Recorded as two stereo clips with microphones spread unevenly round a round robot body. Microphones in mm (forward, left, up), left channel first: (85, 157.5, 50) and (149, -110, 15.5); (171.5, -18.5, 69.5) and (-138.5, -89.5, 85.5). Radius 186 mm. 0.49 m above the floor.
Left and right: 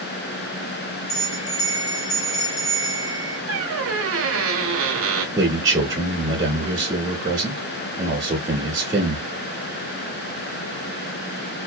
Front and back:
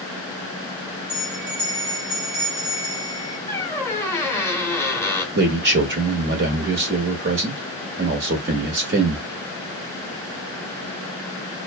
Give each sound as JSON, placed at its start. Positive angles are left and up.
{"t": 1.1, "sound": "a bell", "azimuth_deg": 130, "distance_m": 0.8}
{"t": 3.5, "sound": "a squeak", "azimuth_deg": -65, "distance_m": 0.8}
{"t": 5.3, "sound": "a man speaking", "azimuth_deg": -135, "distance_m": 0.8}